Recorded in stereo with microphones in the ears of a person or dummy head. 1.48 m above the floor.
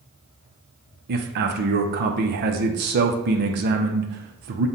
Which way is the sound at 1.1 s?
55° right (ahead or behind).